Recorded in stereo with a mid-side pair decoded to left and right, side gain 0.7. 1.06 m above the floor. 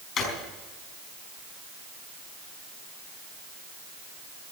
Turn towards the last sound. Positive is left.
turn(degrees=40)